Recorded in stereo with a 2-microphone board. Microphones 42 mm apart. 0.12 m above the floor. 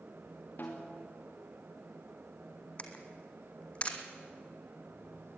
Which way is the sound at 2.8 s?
30° left (ahead or behind).